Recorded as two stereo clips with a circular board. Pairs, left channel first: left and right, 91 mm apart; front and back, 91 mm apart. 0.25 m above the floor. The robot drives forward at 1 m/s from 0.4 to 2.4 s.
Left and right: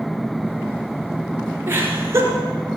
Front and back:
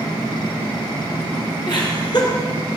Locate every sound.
1.7 s laughter: 30° right, 4 m; by 2.3 s 35° right, 3.5 m